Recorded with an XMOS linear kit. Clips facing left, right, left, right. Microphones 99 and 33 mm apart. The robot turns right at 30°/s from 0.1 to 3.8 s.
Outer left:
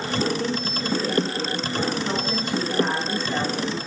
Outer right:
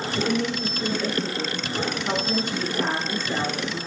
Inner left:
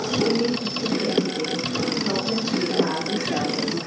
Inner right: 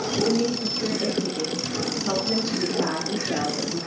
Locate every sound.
0.2 s a woman speaking: 70° right, 6.5 m; by 3.8 s 40° left, 6.5 m